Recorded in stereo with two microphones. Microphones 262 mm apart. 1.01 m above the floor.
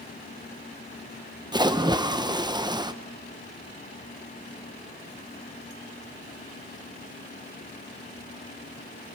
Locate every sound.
1.5 s a splash: 15° right (ahead or behind), 0.7 m